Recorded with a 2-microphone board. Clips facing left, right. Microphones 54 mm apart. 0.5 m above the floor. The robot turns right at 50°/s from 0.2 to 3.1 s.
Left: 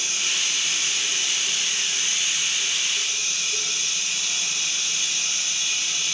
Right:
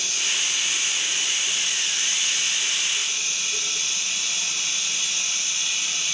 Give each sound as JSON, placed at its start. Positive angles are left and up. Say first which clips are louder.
{"t": 0.0, "sound": "running water", "louder": "even", "azimuth_deg": 45, "distance_m": 3.5}